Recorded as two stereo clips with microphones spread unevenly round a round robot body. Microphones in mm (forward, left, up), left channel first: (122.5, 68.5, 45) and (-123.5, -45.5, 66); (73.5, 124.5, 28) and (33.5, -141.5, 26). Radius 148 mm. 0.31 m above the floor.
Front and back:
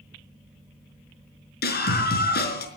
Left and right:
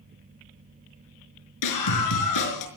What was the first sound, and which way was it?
A scream, 80° left.